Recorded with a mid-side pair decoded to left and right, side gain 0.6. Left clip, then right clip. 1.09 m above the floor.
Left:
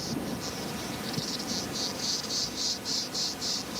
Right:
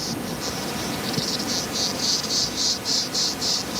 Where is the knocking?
No knocking in this recording.